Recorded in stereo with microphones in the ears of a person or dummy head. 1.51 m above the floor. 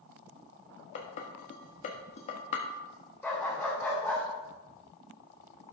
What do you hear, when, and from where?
0.9 s dishes clattering: 40° left (ahead or behind), 1.4 m
3.2 s a dog barking: 10° left (ahead or behind), 2 m